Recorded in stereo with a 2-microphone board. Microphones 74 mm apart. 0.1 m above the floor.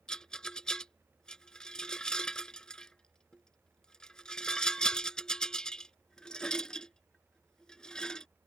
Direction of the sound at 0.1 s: 10° left (ahead or behind).